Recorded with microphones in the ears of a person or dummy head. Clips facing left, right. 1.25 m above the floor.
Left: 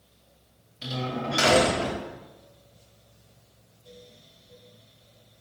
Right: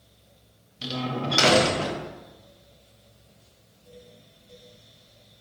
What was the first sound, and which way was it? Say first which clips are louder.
A door slam: right 1 dB; 50° right (ahead or behind).